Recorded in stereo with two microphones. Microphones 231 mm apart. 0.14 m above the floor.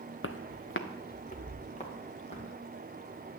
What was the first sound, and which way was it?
Footsteps, 60° left (ahead or behind).